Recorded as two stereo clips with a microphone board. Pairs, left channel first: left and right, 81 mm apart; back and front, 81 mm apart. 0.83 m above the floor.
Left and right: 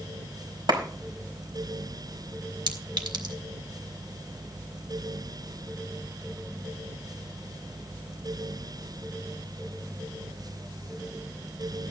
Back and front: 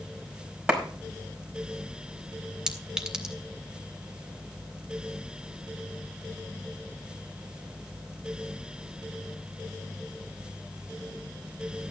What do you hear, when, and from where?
0.7 s a clap: 80° right, 5 m
2.7 s a clink: 80° right, 1.9 m